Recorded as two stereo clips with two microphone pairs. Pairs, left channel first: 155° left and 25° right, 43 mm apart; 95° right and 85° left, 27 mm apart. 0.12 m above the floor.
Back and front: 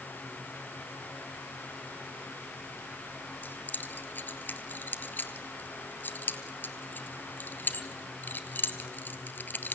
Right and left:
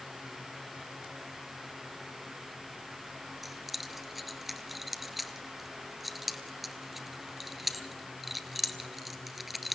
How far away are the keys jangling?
About 1.2 m.